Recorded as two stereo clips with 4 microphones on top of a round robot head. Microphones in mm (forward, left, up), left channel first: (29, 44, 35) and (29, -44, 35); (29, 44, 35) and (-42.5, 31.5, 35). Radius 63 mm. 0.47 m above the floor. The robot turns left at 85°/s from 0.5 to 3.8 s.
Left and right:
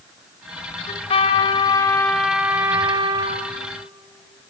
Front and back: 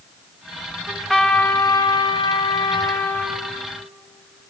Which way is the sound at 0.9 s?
115° left.